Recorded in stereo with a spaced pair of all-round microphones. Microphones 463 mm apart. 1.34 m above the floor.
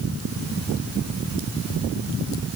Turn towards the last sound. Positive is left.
No sound to turn to.